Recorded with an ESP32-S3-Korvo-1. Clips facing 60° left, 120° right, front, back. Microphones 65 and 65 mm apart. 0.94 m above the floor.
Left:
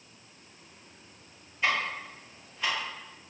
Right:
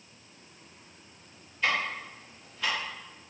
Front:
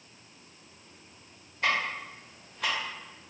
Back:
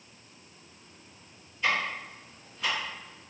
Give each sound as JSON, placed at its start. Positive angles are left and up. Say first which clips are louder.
{"t": 1.6, "sound": "ticking", "louder": "even, even", "azimuth_deg": -10, "distance_m": 1.0}